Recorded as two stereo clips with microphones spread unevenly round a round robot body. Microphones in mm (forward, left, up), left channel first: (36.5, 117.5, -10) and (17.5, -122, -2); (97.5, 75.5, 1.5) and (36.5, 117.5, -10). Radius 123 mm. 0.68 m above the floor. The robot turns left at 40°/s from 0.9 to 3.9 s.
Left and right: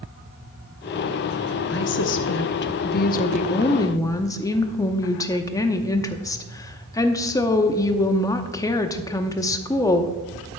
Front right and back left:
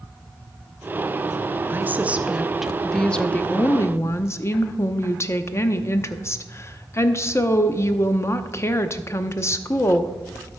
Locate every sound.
1.7 s a woman speaking: 105° left, 0.7 m; by 10.5 s 15° left, 0.7 m